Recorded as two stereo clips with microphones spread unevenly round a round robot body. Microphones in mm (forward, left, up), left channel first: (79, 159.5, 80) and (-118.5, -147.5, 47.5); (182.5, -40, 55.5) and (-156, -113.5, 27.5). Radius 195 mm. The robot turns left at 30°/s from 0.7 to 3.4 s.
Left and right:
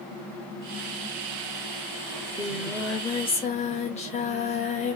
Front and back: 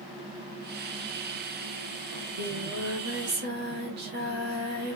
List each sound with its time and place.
2.1 s singing: 170° left, 1.3 m; by 5.0 s 130° left, 1.3 m